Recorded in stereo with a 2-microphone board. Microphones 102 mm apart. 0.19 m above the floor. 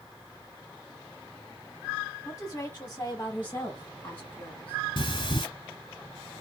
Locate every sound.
2.2 s a woman speaking: 25° left (ahead or behind), 1.4 m; by 4.8 s 15° left (ahead or behind), 1.7 m
5.0 s breathing: 50° left (ahead or behind), 0.7 m